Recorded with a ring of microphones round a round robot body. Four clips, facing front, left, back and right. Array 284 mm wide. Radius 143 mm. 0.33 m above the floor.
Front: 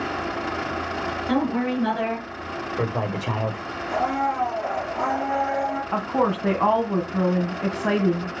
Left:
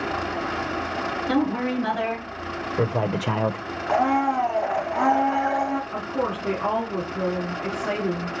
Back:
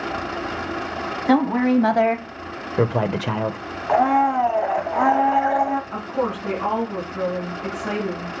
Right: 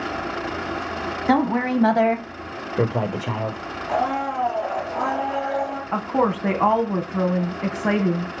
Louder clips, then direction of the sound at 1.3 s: Right 5 dB, back 6 dB; 130° right.